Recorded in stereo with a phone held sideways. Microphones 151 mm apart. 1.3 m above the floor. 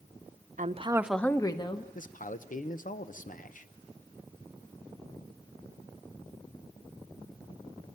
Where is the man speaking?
60° left (ahead or behind), 0.8 m.